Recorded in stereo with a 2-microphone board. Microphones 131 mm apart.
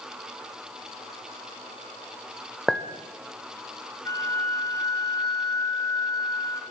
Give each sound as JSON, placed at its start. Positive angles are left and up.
{"t": 2.7, "sound": "a clink", "side_deg": 0, "distance_m": 0.8}
{"t": 4.0, "sound": "a flute", "side_deg": 25, "distance_m": 0.9}